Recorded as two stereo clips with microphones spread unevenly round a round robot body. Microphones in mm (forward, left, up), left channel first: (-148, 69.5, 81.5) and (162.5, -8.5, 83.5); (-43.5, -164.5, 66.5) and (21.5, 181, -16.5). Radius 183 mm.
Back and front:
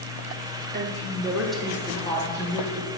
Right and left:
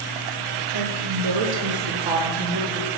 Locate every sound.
0.7 s a woman speaking: 45° left, 1.5 m; by 2.9 s 105° left, 2.5 m